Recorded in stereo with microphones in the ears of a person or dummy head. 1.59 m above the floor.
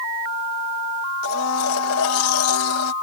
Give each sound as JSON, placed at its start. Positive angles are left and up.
{"t": 1.2, "sound": "a blender", "side_deg": 85}